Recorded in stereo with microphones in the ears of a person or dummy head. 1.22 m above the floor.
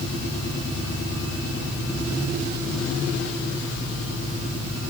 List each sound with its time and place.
Only background noise.